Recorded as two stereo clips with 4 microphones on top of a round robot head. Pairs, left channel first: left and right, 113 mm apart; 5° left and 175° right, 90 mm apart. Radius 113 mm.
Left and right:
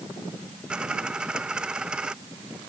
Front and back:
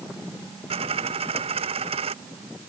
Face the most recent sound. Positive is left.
turn(degrees=-175)